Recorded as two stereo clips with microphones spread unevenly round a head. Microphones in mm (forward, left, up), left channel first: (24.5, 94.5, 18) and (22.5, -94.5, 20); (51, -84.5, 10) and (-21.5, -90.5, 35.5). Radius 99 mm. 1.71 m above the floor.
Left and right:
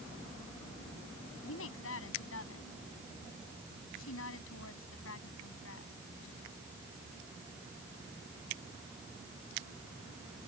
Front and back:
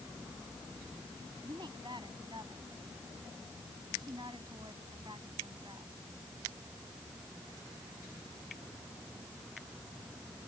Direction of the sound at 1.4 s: 120° left.